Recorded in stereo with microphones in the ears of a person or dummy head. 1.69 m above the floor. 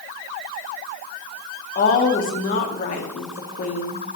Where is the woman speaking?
40° left (ahead or behind), 1.0 m.